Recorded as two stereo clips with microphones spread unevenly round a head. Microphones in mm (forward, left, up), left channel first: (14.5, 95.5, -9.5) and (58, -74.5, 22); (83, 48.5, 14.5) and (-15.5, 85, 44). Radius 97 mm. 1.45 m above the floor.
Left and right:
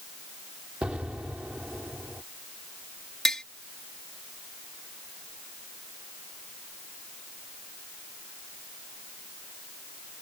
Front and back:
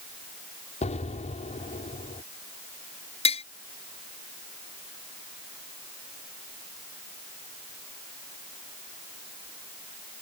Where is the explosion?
5° left.